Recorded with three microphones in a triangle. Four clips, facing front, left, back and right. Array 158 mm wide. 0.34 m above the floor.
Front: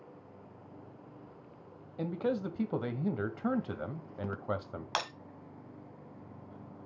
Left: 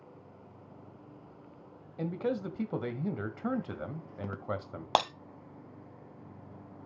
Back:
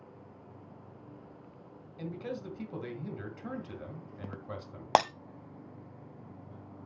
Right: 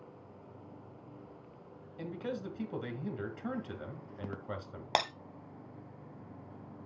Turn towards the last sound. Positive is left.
turn(degrees=160)